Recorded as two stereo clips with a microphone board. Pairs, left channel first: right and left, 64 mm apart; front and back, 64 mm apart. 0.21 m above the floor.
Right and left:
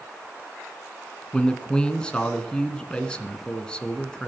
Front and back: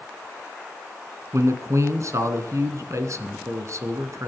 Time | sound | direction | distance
1.3 | a man speaking | 160° right | 2.0 m